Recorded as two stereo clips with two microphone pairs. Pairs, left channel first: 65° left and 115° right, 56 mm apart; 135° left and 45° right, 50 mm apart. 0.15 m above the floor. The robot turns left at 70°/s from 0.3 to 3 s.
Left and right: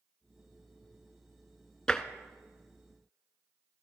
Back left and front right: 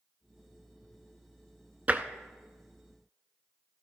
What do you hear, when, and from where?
1.9 s tapping: 10° right, 0.6 m; by 2.0 s 20° right, 0.6 m